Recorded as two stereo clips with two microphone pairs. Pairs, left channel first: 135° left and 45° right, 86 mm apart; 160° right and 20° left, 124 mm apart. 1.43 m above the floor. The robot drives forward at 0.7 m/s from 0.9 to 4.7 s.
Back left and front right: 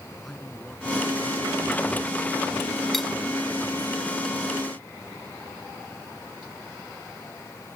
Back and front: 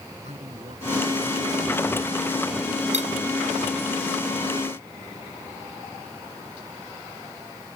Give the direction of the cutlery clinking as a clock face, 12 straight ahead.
10 o'clock.